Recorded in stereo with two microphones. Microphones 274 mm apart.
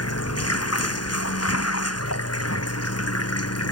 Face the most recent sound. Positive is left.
turn(degrees=60)  # may be behind; listen again after turning